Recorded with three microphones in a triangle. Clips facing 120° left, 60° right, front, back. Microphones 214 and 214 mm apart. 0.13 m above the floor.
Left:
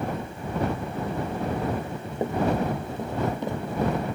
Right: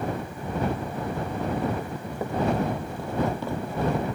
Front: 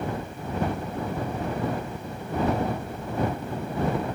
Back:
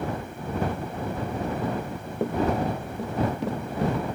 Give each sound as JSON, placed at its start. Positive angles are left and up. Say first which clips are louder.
{"t": 1.8, "sound": "running footsteps", "louder": "left 2 dB, back 5 dB", "azimuth_deg": -170}